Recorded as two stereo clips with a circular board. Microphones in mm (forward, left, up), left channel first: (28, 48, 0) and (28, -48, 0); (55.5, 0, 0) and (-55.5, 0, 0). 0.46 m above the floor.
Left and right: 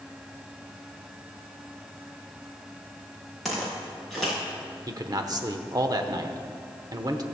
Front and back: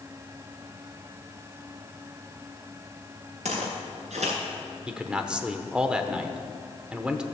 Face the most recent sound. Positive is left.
turn(degrees=-100)